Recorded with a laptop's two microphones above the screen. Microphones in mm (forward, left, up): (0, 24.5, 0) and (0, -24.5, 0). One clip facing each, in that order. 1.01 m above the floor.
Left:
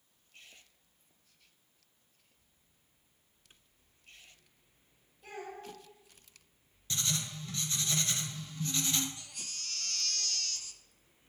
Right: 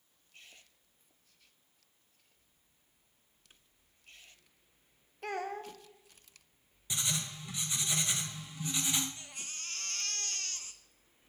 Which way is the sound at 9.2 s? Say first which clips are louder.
Right 1 dB; 25° right (ahead or behind).